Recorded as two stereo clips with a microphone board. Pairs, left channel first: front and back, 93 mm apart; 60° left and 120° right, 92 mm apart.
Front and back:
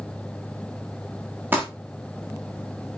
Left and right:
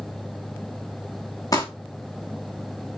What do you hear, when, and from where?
1.5 s crumpling: 110° left, 5 m